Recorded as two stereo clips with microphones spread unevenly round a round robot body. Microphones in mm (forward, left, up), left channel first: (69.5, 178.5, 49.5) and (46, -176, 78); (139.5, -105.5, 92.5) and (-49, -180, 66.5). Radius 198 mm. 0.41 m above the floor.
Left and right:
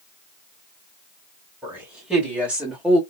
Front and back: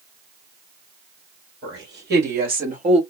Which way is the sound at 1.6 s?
Straight behind.